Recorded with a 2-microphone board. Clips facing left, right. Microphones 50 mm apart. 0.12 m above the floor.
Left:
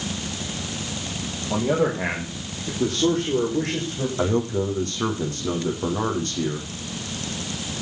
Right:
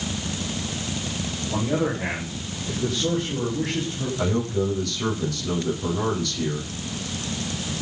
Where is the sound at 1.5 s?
50° left (ahead or behind), 7 m; by 4.1 s 65° left (ahead or behind), 8 m.